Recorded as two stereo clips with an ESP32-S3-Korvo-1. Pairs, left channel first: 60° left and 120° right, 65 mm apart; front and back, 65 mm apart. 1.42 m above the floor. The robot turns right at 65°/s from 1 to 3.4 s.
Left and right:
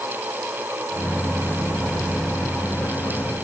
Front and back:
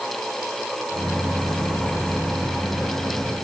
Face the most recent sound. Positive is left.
No sound to turn to.